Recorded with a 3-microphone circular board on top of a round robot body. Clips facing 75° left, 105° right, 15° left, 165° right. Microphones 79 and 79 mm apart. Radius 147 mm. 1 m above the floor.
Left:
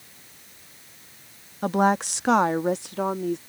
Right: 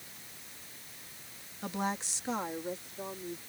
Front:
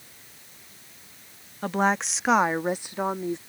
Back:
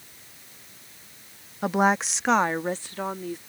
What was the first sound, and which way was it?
A woman speaking, 115° left.